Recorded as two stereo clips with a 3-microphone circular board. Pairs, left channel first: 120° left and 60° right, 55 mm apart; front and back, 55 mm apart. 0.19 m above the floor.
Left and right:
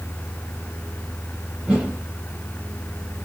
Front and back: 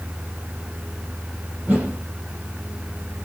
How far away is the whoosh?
About 2.5 m.